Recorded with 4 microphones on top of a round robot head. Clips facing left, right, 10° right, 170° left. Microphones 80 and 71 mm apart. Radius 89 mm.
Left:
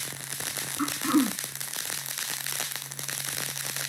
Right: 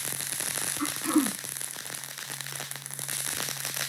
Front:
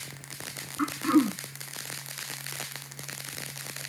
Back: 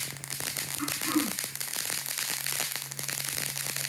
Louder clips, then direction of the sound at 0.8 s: Left 2 dB, front 7 dB; 30° left.